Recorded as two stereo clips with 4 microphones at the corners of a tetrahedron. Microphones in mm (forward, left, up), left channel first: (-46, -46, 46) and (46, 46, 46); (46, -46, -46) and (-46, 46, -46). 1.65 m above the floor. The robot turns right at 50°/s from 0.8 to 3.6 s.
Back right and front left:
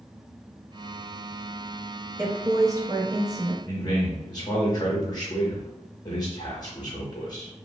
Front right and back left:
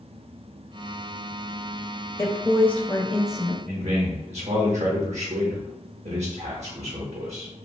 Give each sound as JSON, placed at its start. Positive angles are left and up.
{"t": 2.2, "sound": "a woman speaking", "azimuth_deg": -5, "distance_m": 0.6}
{"t": 3.6, "sound": "a man speaking", "azimuth_deg": 165, "distance_m": 0.6}